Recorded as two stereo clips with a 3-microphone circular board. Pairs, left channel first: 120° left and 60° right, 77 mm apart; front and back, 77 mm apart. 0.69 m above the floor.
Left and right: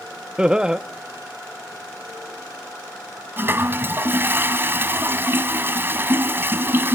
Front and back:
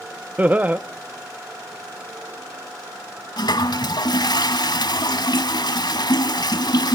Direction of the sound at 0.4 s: 130° right.